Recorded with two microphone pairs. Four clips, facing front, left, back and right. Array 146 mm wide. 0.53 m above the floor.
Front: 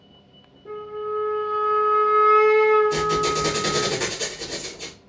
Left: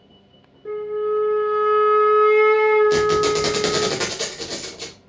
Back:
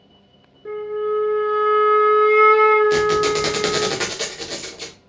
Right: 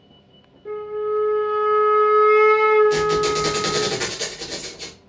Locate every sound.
0.7 s a flute: 175° left, 1.2 m
2.9 s a squeak: 150° left, 0.8 m